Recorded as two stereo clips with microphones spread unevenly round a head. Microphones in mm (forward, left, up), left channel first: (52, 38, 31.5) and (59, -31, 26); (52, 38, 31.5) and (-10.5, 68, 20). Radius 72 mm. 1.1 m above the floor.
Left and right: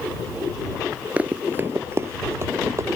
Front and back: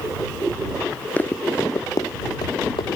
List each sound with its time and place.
1.2 s running footsteps: 20° right; by 3.0 s 40° right